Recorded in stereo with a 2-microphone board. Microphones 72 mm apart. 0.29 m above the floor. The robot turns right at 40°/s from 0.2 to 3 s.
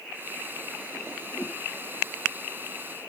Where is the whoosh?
45° left (ahead or behind), 2.5 m; by 1.6 s 35° left (ahead or behind), 2.5 m.